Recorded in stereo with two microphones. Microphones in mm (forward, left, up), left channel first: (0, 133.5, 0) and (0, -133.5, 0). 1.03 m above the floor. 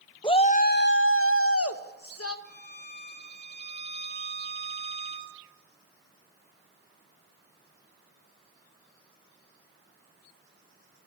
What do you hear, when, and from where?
0.2 s a shout: 20° left (ahead or behind), 0.6 m; by 2.4 s 65° left (ahead or behind), 1.1 m
2.5 s a violin: 45° left (ahead or behind), 1.6 m